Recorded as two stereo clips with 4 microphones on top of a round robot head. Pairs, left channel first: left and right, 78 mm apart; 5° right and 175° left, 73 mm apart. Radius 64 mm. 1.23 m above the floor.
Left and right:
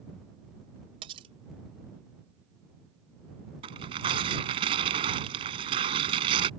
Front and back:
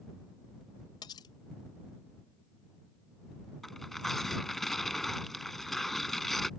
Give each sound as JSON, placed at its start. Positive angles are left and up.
{"t": 1.0, "sound": "cutlery clinking", "azimuth_deg": -55}
{"t": 3.6, "sound": "tearing paper", "azimuth_deg": -95}